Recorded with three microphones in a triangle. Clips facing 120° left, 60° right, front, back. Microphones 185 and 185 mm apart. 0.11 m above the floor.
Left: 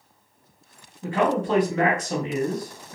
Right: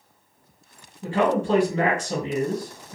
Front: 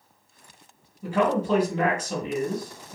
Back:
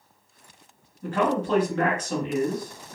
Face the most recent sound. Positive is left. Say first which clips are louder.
# right 1 dB, front 1 dB
turn(degrees=-65)